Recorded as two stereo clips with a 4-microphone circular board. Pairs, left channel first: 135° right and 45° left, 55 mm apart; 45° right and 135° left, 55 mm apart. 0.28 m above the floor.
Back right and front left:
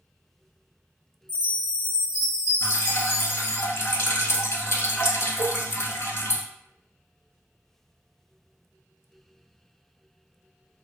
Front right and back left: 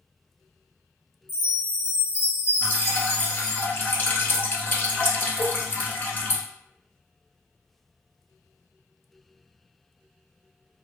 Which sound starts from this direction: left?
A chime, at 1.3 s.